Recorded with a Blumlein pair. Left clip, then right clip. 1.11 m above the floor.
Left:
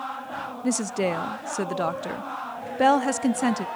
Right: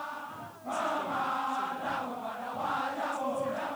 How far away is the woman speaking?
About 0.7 m.